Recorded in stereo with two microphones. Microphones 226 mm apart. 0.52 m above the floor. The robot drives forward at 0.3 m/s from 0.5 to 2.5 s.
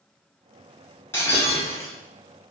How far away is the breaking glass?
About 0.8 m.